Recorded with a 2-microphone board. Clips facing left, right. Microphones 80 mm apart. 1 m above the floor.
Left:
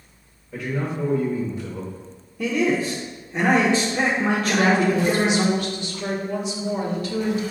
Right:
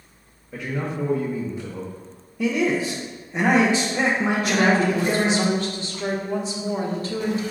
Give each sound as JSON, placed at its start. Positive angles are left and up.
{"t": 0.5, "sound": "a man speaking", "side_deg": -15, "distance_m": 0.9}
{"t": 2.4, "sound": "a man speaking", "side_deg": -10, "distance_m": 0.7}
{"t": 4.4, "sound": "a woman speaking", "side_deg": -35, "distance_m": 1.1}